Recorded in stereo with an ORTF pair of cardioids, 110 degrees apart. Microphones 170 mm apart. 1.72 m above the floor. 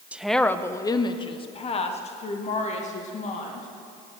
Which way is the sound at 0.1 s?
10° right.